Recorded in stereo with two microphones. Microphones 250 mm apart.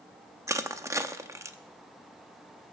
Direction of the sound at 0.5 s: 10° right (ahead or behind).